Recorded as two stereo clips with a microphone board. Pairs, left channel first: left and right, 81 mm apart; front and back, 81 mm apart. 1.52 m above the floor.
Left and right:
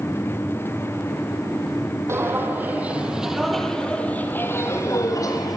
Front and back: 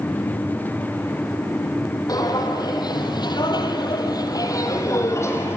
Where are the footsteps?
35° right, 3.5 m; by 5.6 s 55° left, 3.5 m.